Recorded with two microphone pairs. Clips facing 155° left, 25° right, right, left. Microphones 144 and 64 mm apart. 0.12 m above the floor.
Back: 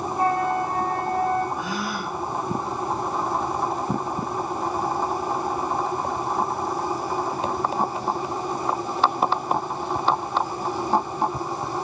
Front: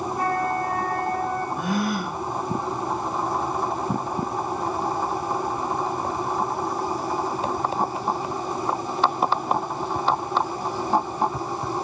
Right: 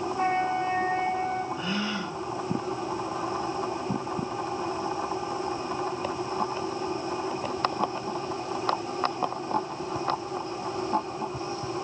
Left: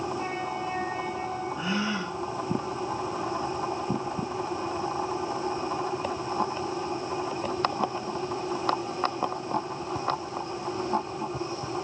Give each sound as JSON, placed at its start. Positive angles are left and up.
{"t": 0.2, "sound": "a flute", "azimuth_deg": -140, "distance_m": 1.8}
{"t": 1.6, "sound": "a gasp", "azimuth_deg": 15, "distance_m": 3.0}